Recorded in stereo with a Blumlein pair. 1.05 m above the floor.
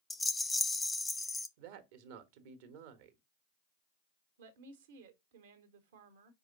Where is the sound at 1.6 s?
50° right, 1.2 m.